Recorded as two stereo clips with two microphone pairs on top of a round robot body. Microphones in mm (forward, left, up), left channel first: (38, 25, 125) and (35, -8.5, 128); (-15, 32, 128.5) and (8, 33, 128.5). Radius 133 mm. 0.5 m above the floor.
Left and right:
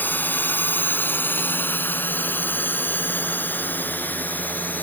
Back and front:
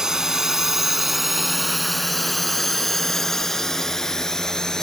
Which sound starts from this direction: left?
A drone, at 0.0 s.